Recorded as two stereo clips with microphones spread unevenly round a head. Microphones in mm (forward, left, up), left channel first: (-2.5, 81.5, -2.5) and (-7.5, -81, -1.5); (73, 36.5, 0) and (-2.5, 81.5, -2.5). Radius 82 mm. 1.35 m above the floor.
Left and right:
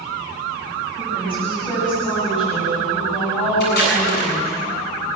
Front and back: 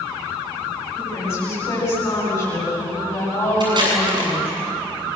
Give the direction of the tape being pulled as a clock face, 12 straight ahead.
8 o'clock.